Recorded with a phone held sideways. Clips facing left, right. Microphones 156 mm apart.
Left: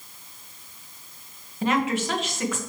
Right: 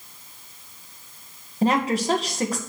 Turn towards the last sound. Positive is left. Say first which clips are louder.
# right 3 dB
turn(degrees=-35)  # may be behind; listen again after turning